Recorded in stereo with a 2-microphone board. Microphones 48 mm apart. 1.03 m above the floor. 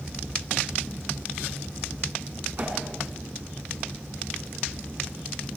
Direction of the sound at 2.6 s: 40° right (ahead or behind).